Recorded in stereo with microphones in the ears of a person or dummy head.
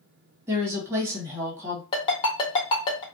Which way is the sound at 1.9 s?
25° left (ahead or behind).